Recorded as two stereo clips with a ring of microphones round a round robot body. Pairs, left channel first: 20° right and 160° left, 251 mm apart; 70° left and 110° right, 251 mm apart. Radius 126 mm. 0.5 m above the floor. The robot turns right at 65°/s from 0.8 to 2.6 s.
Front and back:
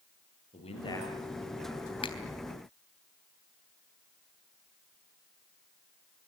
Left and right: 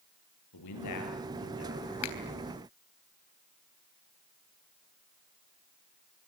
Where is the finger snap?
45° left, 3.5 m; by 2.2 s 55° left, 3.5 m.